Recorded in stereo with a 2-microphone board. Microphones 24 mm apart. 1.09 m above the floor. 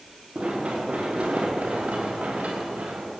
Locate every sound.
0.3 s running footsteps: 60° right (ahead or behind), 7.5 m; by 3.2 s 80° right, 6 m